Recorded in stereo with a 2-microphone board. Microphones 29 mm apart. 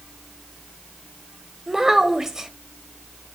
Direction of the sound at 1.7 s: 20° right (ahead or behind).